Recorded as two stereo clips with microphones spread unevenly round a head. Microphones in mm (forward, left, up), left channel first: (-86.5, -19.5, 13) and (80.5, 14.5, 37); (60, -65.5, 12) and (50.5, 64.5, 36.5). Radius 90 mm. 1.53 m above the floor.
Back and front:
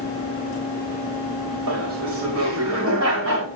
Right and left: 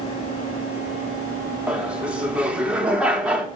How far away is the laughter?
About 5.5 m.